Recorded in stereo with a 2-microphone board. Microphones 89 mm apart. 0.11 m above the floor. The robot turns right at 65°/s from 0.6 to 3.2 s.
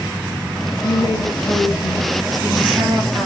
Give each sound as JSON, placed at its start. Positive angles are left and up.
{"t": 0.8, "sound": "a woman speaking", "azimuth_deg": 75, "distance_m": 2.0}